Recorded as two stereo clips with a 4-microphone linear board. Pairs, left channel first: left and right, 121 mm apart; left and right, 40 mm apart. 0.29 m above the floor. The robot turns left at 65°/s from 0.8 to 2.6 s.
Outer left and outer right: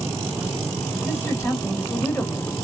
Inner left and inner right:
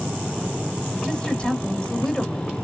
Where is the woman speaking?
20° left (ahead or behind), 1.0 m; by 2.5 s 10° left (ahead or behind), 1.0 m.